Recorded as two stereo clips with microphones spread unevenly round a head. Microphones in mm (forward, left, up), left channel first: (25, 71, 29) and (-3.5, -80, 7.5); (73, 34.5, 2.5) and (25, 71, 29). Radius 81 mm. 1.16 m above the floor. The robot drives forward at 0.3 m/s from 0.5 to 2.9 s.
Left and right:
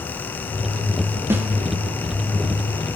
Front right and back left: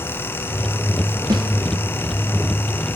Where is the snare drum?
170° right, 0.7 m.